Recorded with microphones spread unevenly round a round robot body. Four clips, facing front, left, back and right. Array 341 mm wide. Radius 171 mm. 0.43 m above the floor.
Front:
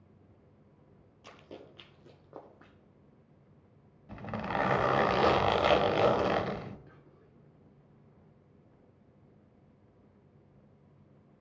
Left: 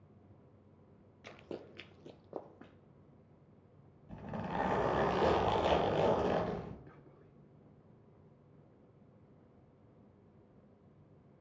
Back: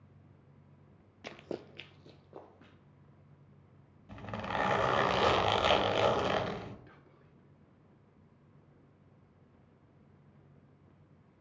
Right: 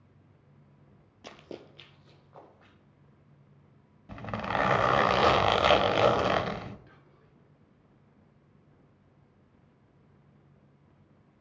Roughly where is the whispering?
Left.